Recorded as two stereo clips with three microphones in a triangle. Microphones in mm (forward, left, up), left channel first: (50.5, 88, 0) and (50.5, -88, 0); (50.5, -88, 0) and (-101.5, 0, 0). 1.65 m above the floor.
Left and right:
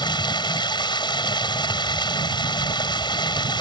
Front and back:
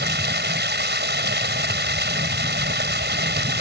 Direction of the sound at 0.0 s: 155° left.